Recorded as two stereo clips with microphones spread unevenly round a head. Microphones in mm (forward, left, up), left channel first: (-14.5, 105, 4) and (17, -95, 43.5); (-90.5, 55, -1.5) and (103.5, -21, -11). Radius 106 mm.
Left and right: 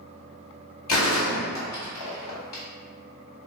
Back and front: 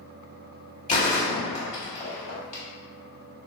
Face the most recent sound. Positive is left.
turn(degrees=105)